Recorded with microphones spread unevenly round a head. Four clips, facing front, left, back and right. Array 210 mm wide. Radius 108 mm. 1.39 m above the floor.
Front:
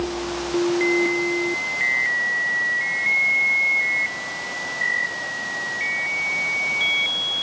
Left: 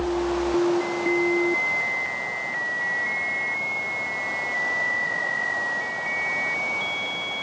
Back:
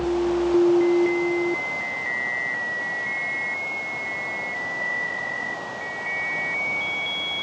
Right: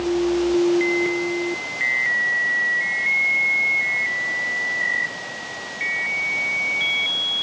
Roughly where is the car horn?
No car horn in this recording.